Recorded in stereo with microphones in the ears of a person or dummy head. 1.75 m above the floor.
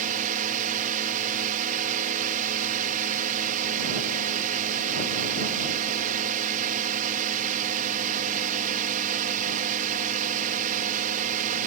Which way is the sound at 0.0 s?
50° right (ahead or behind).